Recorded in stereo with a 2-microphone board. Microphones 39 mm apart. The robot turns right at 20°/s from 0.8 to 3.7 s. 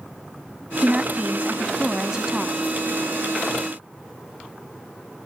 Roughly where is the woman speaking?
Centre.